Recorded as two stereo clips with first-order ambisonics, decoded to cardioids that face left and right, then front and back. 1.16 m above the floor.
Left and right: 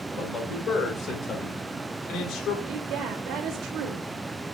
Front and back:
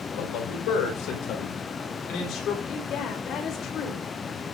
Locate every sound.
0.1 s a man speaking: 25° left, 4.5 m; by 2.6 s 50° left, 3.5 m
2.7 s a woman speaking: 50° right, 3 m